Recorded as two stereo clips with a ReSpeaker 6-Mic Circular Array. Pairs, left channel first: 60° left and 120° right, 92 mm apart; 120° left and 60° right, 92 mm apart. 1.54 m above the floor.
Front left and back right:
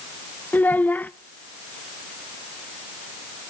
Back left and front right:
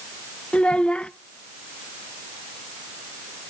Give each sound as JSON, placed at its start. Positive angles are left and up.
{"t": 0.5, "sound": "a child speaking", "azimuth_deg": 75, "distance_m": 0.5}